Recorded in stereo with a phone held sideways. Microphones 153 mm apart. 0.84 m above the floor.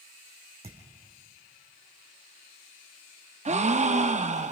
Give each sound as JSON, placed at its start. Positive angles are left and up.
{"t": 0.6, "sound": "a thud", "side_deg": -40, "distance_m": 3.5}
{"t": 3.5, "sound": "a gasp", "side_deg": -50, "distance_m": 0.7}